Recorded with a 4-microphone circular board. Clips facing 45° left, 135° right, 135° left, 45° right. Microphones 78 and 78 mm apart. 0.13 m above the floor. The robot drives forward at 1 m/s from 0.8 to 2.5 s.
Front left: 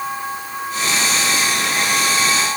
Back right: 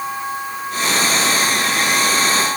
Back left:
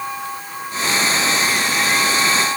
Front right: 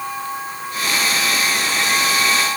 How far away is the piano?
I don't hear a piano.